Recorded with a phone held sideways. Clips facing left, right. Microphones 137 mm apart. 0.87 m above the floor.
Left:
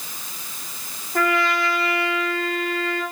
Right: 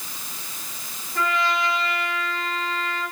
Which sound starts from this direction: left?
A trumpet, at 1.1 s.